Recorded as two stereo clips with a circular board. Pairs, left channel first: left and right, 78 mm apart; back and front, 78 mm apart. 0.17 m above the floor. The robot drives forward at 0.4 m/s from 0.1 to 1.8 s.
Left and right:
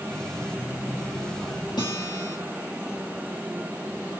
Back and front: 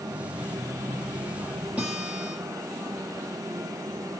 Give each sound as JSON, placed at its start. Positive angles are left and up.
{"t": 1.8, "sound": "a guitar", "azimuth_deg": 75, "distance_m": 5.5}